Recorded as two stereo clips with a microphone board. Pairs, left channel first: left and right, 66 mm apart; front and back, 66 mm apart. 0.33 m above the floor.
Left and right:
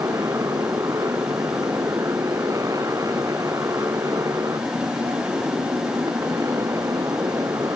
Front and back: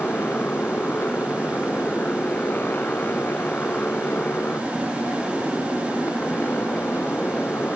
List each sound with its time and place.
0.0 s a motorcycle: 60° right